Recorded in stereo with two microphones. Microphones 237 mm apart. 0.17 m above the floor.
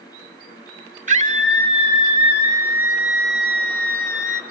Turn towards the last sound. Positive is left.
turn(degrees=15)  # may be behind; listen again after turning